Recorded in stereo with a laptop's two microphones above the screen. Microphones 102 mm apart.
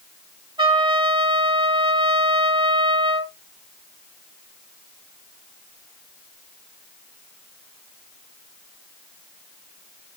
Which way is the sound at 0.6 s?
55° right (ahead or behind).